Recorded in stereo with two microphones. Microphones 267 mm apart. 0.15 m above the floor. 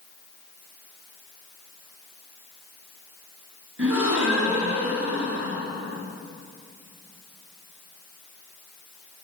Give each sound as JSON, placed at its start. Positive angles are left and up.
{"t": 3.8, "sound": "a gasp", "side_deg": -55, "distance_m": 1.3}